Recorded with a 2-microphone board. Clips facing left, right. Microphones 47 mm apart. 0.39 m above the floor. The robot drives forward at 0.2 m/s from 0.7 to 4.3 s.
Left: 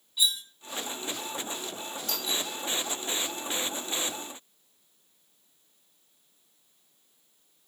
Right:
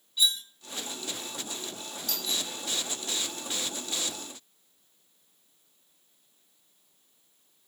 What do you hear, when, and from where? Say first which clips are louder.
0.2 s cutlery clinking: right 1 dB; 5° left (ahead or behind), 0.6 m
2.1 s a doorbell: left 1 dB; 40° left (ahead or behind), 1.8 m